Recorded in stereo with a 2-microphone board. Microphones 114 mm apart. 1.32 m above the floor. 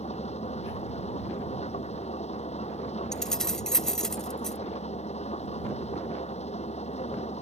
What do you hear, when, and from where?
0.0 s an engine running: 65° left (ahead or behind)
3.1 s keys jangling: 5° left (ahead or behind)